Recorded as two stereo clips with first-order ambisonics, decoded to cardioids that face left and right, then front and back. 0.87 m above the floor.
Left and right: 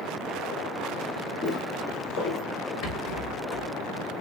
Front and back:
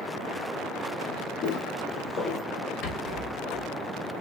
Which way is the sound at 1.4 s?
35° left.